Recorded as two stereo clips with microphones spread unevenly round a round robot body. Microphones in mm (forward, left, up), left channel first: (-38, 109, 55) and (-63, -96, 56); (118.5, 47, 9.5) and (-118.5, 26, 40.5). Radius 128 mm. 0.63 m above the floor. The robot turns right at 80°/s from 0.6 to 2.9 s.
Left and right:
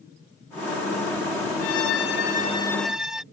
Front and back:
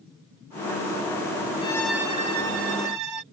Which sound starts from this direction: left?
A violin, at 1.6 s.